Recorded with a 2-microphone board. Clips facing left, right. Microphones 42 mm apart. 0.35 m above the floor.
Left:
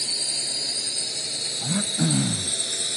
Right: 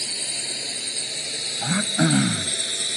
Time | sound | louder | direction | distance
0.0 | a drone | even | 35° right (ahead or behind) | ?
1.6 | throat clearing | right 4 dB | 55° right (ahead or behind) | ?